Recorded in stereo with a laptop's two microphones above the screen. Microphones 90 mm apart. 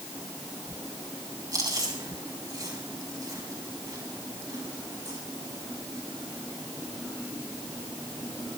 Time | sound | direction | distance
1.5 | chewing | 40° right (ahead or behind) | 4 m